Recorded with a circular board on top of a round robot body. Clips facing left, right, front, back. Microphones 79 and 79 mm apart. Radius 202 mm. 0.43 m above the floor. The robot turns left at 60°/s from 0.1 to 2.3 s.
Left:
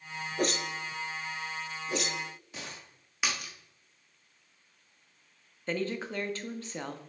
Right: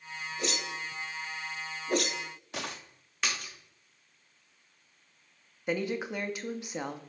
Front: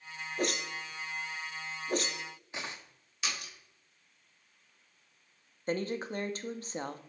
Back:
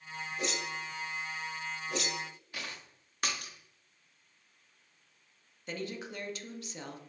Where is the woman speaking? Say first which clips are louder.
Right 1 dB, front 6 dB; 20° right, 0.9 m.